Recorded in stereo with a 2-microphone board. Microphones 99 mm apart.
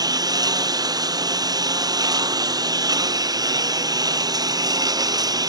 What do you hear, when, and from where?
0.0 s a lawn mower: 40° right (ahead or behind)